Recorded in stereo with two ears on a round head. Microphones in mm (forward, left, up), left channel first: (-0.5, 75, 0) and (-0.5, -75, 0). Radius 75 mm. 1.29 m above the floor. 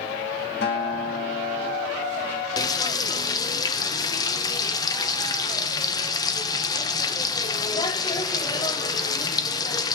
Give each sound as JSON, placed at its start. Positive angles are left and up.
{"t": 0.6, "sound": "a guitar", "side_deg": 70, "distance_m": 1.4}
{"t": 2.6, "sound": "frying", "side_deg": 25, "distance_m": 0.6}